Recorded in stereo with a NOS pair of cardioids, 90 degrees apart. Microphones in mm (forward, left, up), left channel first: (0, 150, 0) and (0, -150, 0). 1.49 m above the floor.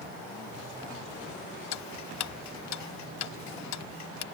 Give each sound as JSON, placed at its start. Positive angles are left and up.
{"t": 1.7, "sound": "ticking", "azimuth_deg": 70}